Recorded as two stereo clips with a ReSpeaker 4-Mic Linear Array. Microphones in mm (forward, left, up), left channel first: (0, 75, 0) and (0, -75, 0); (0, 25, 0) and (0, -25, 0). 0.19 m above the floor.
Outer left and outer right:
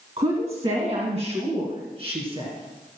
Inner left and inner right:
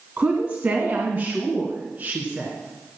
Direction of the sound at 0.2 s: 40° right (ahead or behind).